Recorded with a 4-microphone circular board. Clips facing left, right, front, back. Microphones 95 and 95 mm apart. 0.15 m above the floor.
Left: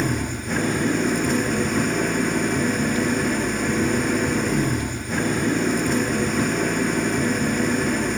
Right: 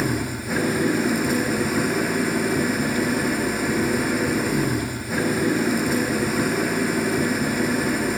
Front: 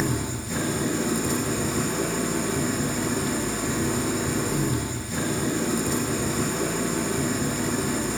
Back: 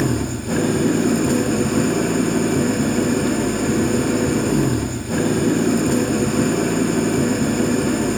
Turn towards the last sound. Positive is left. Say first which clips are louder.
# even, back 7 dB
turn(degrees=-175)